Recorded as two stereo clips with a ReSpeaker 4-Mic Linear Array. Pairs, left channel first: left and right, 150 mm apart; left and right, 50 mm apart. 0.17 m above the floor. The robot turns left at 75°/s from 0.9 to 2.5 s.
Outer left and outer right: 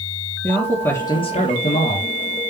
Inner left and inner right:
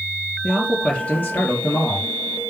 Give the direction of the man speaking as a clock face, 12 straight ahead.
7 o'clock.